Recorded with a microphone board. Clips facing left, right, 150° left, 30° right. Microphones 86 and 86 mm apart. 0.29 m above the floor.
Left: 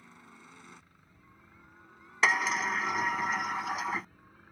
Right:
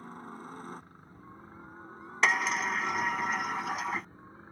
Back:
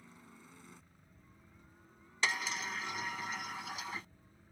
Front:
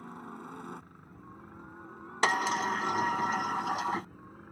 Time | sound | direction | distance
0.0 | a helicopter | 50° right | ?
2.2 | a sliding door | straight ahead | ?